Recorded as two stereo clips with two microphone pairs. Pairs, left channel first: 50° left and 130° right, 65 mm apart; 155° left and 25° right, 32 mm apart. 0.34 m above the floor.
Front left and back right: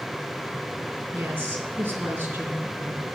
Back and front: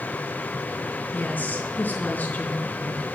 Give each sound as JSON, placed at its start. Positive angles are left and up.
{"t": 1.1, "sound": "a woman speaking", "azimuth_deg": 170, "distance_m": 3.5}